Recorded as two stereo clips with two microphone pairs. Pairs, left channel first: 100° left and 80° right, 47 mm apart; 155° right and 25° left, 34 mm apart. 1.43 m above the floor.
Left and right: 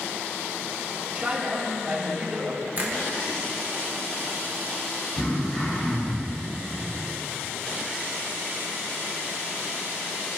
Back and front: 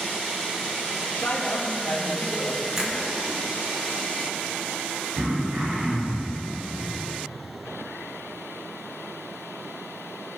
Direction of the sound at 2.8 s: 40° right.